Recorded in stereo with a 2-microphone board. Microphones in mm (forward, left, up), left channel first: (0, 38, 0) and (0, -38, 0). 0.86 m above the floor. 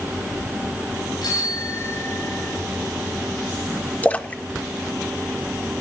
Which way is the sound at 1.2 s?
75° left (ahead or behind).